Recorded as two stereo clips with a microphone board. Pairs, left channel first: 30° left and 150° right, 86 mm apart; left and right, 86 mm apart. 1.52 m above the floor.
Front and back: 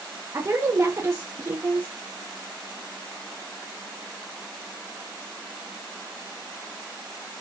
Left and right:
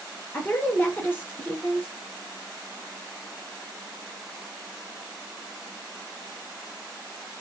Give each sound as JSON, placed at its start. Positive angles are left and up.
{"t": 0.3, "sound": "a woman speaking", "azimuth_deg": 150, "distance_m": 0.8}